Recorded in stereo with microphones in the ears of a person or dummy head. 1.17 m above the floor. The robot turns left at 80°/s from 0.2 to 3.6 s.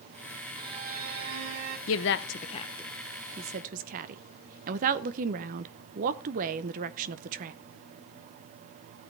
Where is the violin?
25° right, 2.5 m; by 1.8 s 125° right, 2.5 m.